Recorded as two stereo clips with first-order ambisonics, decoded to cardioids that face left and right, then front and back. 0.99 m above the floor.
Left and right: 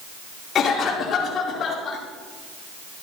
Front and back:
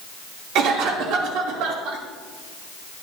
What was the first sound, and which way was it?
A cough, 150° left.